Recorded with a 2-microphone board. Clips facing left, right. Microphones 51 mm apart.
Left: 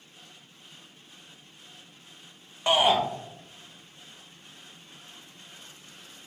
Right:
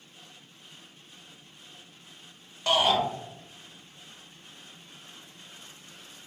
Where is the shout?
20° left (ahead or behind), 0.8 m.